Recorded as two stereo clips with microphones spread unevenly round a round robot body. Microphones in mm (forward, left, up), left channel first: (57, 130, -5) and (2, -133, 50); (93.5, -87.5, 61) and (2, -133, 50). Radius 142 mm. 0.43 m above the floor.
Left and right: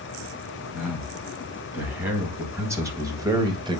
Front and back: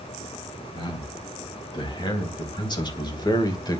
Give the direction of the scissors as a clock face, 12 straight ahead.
No scissors in this recording.